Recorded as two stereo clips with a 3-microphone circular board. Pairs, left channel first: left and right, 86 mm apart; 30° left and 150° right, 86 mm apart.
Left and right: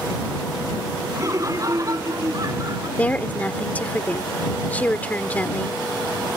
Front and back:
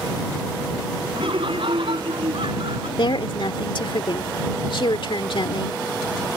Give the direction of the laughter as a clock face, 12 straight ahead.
5 o'clock.